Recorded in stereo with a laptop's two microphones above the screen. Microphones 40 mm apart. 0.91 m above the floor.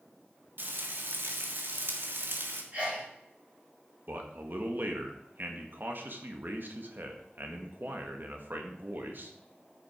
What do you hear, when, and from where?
0.6 s frying: 60° right (ahead or behind), 1.7 m
2.7 s a sneeze: 40° right (ahead or behind), 3.5 m
4.1 s a man speaking: 55° right (ahead or behind), 1.5 m